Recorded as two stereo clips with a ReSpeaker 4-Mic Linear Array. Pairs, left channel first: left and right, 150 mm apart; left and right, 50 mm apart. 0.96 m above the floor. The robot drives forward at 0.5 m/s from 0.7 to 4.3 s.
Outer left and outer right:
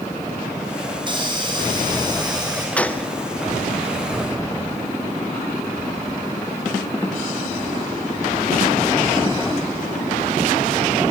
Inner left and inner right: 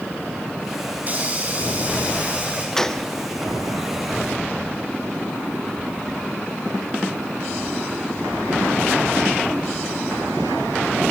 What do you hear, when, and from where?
1.0 s a hiss: 30° right (ahead or behind), 5 m; by 2.7 s 25° right (ahead or behind), 5.5 m
2.8 s a gunshot: 10° left (ahead or behind), 1.0 m